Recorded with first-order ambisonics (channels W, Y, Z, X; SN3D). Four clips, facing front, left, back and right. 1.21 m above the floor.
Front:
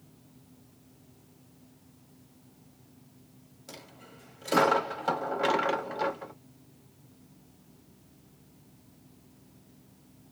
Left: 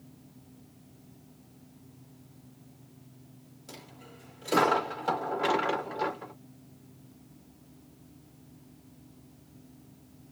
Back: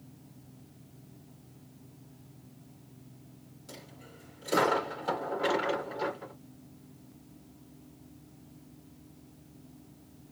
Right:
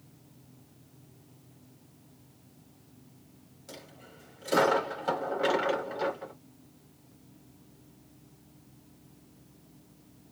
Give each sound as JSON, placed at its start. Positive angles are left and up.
{"t": 3.7, "sound": "a dropped coin", "azimuth_deg": 0, "distance_m": 1.1}